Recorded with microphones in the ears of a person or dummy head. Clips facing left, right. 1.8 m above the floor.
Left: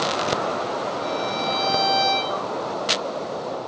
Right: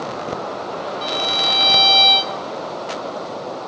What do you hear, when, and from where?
1.0 s a violin: 45° right (ahead or behind), 0.5 m